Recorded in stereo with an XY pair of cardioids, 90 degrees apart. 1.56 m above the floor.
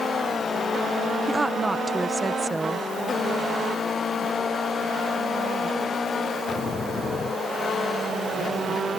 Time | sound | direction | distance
1.3 | a woman speaking | 20° right | ?